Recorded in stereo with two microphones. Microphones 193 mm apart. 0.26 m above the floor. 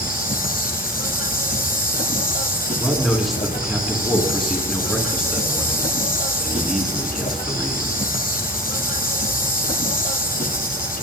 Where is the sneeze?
I don't hear a sneeze.